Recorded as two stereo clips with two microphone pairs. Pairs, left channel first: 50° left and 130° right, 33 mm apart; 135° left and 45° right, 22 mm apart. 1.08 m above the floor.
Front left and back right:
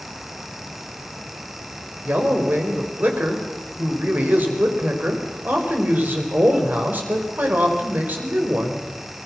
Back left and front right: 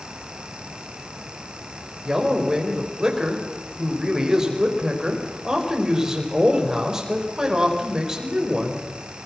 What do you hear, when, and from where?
2.0 s a man speaking: 105° right, 4.5 m